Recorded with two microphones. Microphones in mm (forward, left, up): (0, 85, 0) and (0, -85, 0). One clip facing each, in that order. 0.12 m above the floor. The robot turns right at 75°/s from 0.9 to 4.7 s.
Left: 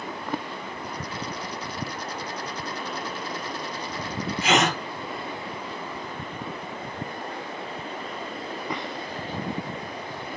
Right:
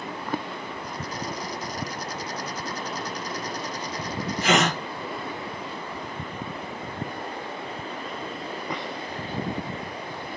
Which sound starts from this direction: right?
A gasp, at 4.4 s.